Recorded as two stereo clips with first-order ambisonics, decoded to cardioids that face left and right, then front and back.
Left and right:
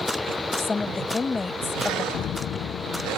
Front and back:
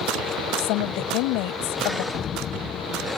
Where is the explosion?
50° left.